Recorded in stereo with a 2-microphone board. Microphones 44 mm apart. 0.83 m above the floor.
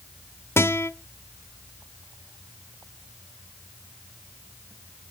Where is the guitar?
70° left (ahead or behind), 0.8 m.